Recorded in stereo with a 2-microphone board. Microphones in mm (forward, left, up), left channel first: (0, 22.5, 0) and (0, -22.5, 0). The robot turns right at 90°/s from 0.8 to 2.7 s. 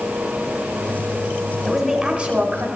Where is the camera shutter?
No camera shutter in this recording.